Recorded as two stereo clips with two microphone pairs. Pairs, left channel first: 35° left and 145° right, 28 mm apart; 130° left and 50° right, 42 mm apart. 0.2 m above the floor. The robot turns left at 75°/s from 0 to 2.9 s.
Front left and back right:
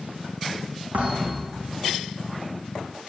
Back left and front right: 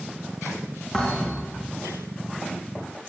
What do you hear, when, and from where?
0.9 s a thud: 140° right, 4.5 m; by 1.6 s 165° left, 4.5 m